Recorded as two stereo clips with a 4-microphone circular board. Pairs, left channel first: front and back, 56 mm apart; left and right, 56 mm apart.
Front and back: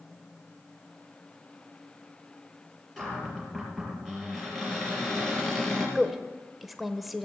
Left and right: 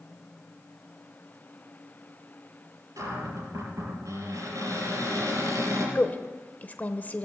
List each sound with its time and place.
3.0 s a cupboard door: 85° right, 5 m
6.0 s a woman speaking: 95° left, 1.1 m